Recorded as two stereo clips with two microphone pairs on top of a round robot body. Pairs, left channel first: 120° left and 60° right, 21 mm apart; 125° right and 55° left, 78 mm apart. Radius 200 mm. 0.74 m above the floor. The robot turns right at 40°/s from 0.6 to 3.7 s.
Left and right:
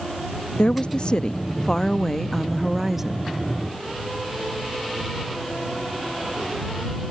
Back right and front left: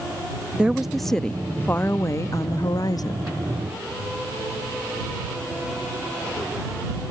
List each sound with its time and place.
0.6 s a woman speaking: 135° left; by 3.3 s 120° right